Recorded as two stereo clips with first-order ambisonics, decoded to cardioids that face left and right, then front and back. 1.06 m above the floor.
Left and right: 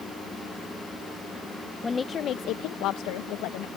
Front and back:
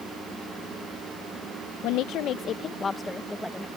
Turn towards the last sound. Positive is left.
turn(degrees=95)